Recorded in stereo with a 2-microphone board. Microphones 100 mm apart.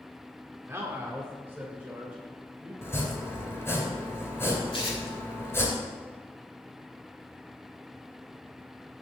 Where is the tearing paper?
60° left (ahead or behind), 2 m.